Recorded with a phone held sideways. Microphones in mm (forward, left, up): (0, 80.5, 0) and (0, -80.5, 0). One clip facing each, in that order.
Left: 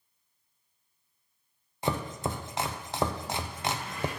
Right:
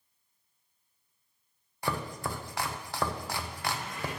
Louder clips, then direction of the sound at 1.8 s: Left 3 dB; 20° left (ahead or behind).